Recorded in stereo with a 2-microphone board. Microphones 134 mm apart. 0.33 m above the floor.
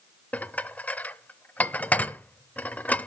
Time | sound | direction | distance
0.3 | dishes clattering | 10° left (ahead or behind) | 0.5 m